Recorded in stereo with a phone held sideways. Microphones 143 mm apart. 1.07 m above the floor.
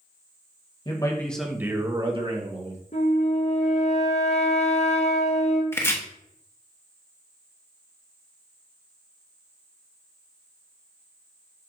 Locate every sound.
0.8 s a man speaking: 35° left (ahead or behind), 1.2 m; by 2.8 s 55° right (ahead or behind), 2 m
2.9 s a flute: 50° left (ahead or behind), 1.0 m
5.7 s chopping: 15° left (ahead or behind), 1.0 m